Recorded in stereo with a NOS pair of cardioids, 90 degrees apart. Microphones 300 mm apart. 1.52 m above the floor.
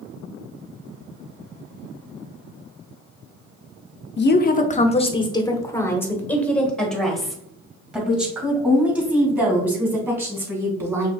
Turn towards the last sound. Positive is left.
turn(degrees=-10)